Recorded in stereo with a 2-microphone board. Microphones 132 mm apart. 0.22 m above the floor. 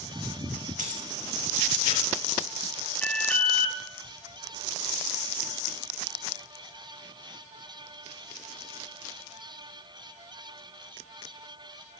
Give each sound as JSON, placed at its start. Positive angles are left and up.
{"t": 0.8, "sound": "keys jangling", "side_deg": -75, "distance_m": 4.5}
{"t": 3.0, "sound": "an alarm", "side_deg": 10, "distance_m": 1.1}